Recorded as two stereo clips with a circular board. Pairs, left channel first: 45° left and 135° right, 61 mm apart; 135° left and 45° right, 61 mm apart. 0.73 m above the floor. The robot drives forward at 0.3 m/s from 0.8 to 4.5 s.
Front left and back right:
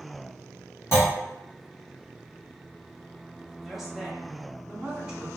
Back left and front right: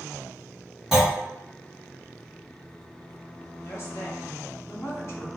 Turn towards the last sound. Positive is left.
turn(degrees=150)